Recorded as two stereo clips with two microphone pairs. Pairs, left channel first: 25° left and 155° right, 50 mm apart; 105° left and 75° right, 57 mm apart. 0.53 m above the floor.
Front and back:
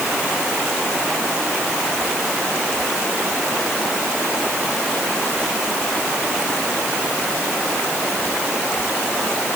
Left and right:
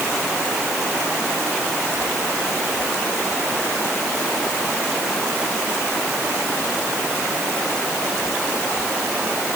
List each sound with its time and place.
Only background noise.